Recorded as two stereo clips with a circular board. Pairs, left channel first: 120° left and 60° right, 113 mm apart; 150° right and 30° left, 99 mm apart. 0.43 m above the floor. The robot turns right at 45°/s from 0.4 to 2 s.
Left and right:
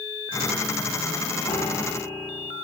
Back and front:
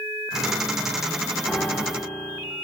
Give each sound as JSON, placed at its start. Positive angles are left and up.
{"t": 1.5, "sound": "a piano", "azimuth_deg": 130, "distance_m": 1.9}